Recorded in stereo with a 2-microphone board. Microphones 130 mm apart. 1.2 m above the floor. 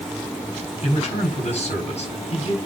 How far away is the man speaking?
About 4 m.